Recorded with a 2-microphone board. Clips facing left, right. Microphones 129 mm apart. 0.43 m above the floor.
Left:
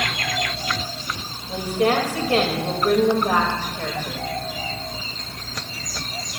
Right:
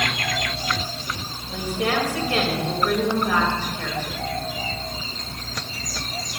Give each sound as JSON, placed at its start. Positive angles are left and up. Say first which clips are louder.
{"t": 1.5, "sound": "a woman speaking", "louder": "left 4 dB", "side_deg": 40, "distance_m": 2.5}